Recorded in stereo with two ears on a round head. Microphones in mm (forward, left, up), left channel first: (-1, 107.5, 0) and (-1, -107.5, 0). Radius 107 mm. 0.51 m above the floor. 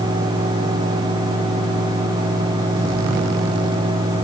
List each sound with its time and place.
Only background noise.